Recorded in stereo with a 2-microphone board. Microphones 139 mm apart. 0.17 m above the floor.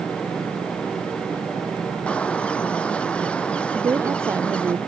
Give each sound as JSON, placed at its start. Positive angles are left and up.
{"t": 2.1, "sound": "a bird", "side_deg": 10}
{"t": 3.7, "sound": "a woman speaking", "side_deg": -15}